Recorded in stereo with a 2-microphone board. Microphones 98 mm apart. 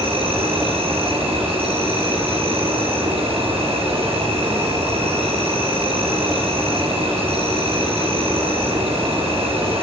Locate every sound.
0.0 s an insect: 65° right (ahead or behind), 4 m